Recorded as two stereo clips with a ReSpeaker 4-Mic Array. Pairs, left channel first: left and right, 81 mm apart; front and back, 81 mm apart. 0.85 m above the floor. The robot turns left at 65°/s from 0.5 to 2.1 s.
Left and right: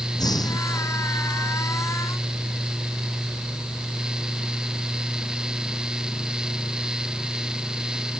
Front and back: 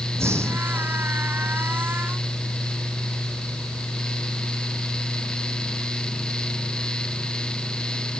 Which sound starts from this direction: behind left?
Breathing, at 0.1 s.